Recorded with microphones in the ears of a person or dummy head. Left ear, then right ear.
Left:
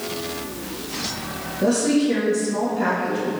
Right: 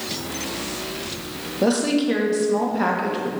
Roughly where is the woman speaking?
Right.